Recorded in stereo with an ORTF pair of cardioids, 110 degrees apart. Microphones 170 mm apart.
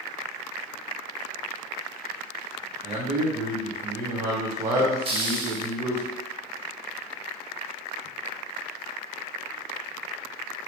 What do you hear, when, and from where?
2.8 s a man speaking: 40° right, 0.9 m
5.0 s a hiss: 35° right, 0.9 m